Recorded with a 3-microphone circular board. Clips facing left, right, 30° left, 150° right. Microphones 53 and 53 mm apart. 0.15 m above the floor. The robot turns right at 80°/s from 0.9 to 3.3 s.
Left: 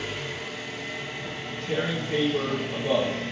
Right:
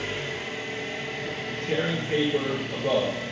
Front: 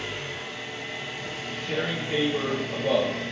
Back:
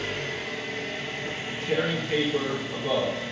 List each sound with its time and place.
0.0 s an engine running: 135° right, 0.7 m; by 3.3 s 55° left, 0.7 m
1.2 s tearing paper: 165° right, 1.2 m; by 3.1 s 15° right, 1.2 m